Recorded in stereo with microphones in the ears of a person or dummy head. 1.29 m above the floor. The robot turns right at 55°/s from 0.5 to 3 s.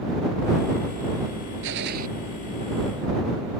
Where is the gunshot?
70° right (ahead or behind); by 2.1 s 45° right (ahead or behind).